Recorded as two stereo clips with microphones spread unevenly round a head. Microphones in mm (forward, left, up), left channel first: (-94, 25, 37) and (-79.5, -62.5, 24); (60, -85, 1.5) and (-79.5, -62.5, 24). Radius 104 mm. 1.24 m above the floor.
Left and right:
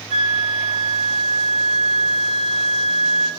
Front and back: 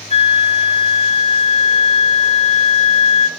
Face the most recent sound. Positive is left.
turn(degrees=-55)